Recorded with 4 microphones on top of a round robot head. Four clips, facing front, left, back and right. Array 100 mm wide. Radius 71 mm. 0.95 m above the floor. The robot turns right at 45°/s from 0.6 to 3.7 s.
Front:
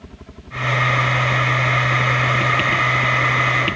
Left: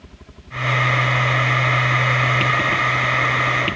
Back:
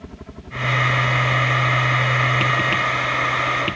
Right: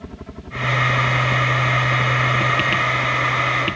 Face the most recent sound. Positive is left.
turn(degrees=35)